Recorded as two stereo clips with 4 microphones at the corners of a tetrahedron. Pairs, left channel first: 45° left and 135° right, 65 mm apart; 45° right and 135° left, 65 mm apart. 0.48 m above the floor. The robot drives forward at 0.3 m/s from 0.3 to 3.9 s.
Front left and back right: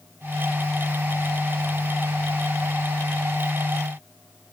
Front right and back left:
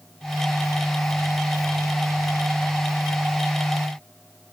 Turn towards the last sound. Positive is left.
No sound to turn to.